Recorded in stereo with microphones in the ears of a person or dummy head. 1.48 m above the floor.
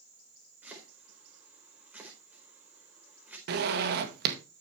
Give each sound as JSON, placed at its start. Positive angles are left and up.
{"t": 0.6, "sound": "chopping", "side_deg": -10, "distance_m": 4.5}
{"t": 3.5, "sound": "a zipper", "side_deg": -50, "distance_m": 1.7}